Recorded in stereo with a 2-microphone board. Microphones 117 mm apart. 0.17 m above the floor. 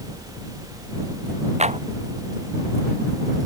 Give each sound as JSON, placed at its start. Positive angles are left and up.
{"t": 1.6, "sound": "a clap", "side_deg": -80}